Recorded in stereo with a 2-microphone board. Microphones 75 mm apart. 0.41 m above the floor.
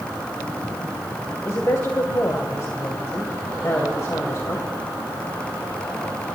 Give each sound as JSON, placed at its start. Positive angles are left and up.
{"t": 1.4, "sound": "a woman speaking", "side_deg": 40, "distance_m": 2.0}